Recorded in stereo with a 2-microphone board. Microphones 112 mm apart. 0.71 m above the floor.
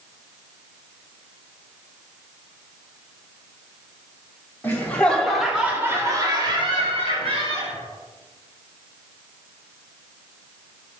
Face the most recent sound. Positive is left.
turn(degrees=-70)  # may be behind; listen again after turning